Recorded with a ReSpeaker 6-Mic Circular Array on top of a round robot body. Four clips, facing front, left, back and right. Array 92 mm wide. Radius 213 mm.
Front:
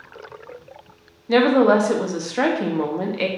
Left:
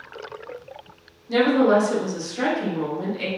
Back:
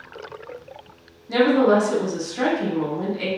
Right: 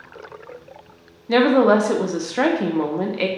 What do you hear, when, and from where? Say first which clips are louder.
1.3 s a woman speaking: right 3 dB, front 2 dB; 55° right, 0.9 m